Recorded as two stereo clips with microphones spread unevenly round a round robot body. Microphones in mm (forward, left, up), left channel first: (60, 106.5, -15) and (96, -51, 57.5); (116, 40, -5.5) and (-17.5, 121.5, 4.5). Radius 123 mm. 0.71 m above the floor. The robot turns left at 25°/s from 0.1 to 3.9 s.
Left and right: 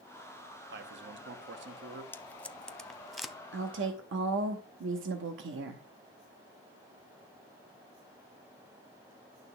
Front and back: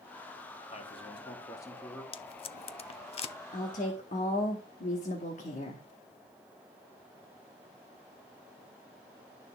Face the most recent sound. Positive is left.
turn(degrees=-80)